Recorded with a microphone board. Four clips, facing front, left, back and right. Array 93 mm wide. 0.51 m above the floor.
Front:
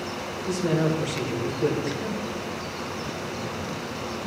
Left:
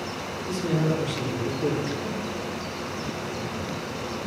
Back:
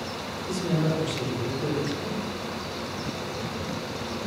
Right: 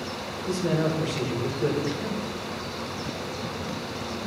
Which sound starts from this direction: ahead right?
A man speaking, at 0.5 s.